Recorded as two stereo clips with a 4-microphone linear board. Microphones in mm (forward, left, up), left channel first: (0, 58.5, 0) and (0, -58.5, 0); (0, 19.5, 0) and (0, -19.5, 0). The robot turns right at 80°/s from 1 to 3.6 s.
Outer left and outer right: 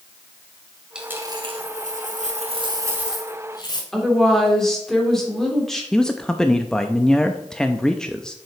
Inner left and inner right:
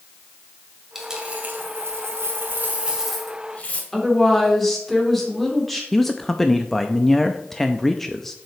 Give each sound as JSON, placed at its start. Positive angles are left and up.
{"t": 0.9, "sound": "a dropped coin", "azimuth_deg": -175, "distance_m": 1.8}
{"t": 3.9, "sound": "a woman speaking", "side_deg": 5, "distance_m": 3.0}
{"t": 5.9, "sound": "a man speaking", "side_deg": 5, "distance_m": 0.5}